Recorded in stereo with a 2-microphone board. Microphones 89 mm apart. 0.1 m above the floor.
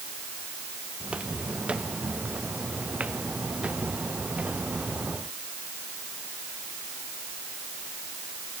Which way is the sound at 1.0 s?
10° right (ahead or behind).